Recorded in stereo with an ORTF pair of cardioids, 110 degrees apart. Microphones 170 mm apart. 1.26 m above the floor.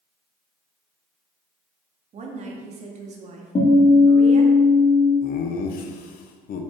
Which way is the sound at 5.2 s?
60° left.